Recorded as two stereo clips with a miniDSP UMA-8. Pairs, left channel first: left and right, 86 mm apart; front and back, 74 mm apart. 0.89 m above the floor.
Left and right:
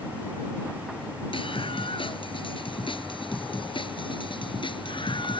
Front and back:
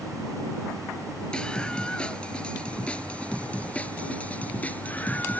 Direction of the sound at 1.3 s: 80° left.